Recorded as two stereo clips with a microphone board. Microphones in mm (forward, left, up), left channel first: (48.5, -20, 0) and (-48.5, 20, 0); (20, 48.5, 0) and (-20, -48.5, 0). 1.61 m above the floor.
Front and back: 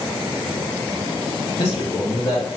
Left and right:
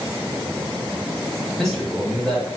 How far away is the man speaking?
About 1.6 m.